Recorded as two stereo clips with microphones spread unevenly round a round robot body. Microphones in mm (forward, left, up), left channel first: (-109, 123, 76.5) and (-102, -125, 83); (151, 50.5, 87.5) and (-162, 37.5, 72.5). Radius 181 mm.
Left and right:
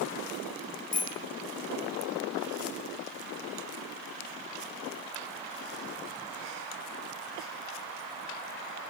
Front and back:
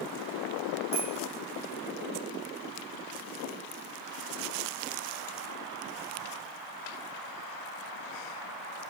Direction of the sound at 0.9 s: 135° left.